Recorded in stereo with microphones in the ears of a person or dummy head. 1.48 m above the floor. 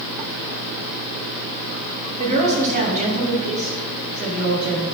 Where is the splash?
I don't hear a splash.